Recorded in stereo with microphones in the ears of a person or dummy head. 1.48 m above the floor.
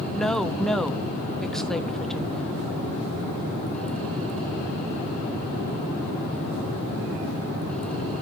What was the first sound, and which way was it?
A woman speaking, 10° left (ahead or behind).